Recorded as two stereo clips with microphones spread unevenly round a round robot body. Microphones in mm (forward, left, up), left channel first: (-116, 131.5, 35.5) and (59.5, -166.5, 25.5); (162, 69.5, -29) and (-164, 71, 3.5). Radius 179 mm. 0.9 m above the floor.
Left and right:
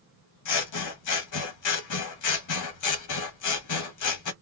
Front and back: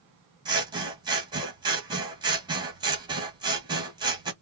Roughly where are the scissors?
Left.